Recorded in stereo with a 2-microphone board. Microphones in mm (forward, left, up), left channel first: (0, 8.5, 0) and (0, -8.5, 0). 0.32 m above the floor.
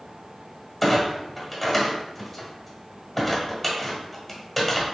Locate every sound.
0.8 s a clunk: 5° left (ahead or behind), 1.3 m